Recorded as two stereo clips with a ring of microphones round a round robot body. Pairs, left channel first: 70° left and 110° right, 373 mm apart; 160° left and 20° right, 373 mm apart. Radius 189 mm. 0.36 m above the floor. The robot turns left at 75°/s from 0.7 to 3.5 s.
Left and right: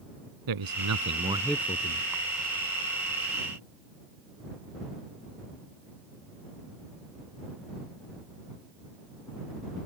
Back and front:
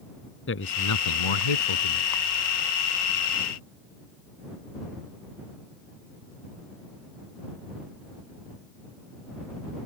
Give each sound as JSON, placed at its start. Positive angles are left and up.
{"t": 0.5, "sound": "a man speaking", "azimuth_deg": -145}